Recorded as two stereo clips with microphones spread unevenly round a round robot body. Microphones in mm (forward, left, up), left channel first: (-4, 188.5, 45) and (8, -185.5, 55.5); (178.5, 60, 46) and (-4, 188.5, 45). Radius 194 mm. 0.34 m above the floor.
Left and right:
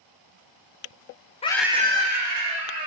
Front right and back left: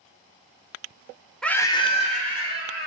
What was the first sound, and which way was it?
A scream, 45° left.